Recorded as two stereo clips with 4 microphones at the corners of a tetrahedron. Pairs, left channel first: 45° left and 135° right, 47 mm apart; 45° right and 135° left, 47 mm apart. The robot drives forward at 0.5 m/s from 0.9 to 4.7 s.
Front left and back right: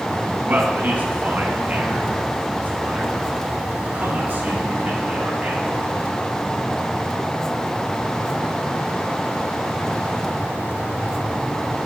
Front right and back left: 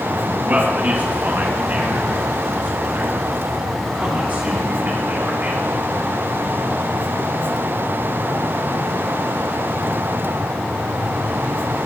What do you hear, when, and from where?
0.5 s a man speaking: straight behind, 3 m